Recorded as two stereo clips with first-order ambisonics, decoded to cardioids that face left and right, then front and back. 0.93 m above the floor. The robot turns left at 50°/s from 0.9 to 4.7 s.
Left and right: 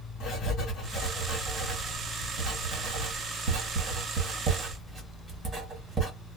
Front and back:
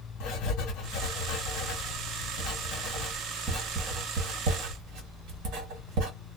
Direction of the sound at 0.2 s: 35° left.